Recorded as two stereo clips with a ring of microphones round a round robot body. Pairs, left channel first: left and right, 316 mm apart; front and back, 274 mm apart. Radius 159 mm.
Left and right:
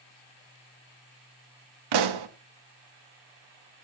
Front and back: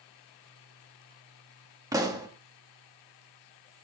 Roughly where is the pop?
Right.